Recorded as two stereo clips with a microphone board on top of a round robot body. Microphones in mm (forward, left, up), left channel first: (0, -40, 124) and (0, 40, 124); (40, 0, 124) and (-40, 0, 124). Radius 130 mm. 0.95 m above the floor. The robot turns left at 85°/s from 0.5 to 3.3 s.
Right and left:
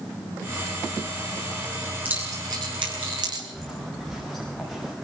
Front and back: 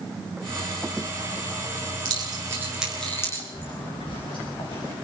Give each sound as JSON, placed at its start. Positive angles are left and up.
{"t": 2.0, "sound": "keys jangling", "azimuth_deg": 160, "distance_m": 9.0}
{"t": 3.5, "sound": "footsteps", "azimuth_deg": 0, "distance_m": 9.5}